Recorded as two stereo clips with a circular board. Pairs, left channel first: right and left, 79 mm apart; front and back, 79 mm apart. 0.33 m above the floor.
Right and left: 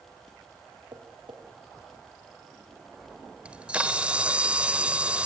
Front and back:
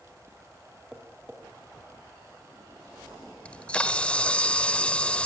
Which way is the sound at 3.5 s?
45° left.